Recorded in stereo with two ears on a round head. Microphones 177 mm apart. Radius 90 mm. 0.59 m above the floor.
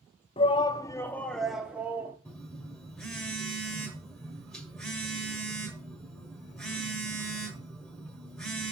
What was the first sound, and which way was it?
A shout, 25° left (ahead or behind).